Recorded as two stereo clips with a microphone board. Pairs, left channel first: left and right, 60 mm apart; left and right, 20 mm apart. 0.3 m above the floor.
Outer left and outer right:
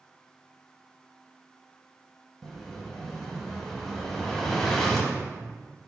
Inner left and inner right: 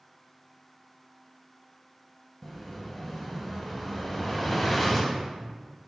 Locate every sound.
2.4 s an explosion: 5° left (ahead or behind), 0.5 m